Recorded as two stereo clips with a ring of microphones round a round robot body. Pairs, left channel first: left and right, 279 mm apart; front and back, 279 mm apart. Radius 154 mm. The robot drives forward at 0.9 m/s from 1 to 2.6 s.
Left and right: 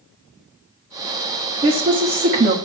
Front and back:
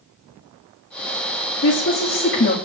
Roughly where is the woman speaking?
Ahead right.